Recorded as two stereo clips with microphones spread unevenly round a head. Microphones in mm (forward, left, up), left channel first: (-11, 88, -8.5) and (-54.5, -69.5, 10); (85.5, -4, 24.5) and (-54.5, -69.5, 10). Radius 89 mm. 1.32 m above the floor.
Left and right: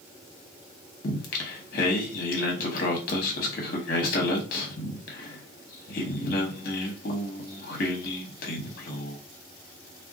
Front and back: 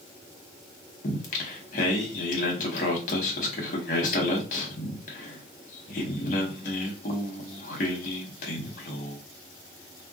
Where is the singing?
45° left, 0.7 m.